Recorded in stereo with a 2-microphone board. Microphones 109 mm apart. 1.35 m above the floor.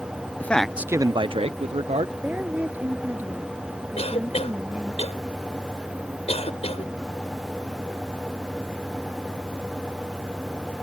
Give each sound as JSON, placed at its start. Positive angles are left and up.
{"t": 0.4, "sound": "a man speaking", "side_deg": 15}
{"t": 2.2, "sound": "a woman speaking", "side_deg": -15}
{"t": 4.0, "sound": "a cough", "side_deg": 65}